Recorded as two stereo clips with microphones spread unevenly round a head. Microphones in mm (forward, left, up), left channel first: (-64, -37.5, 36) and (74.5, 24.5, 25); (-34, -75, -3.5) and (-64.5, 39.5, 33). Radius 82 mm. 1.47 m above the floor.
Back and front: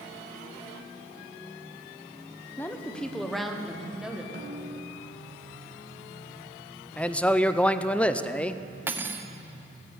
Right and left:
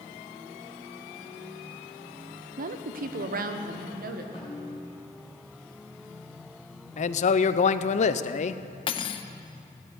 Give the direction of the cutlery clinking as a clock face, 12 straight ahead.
2 o'clock.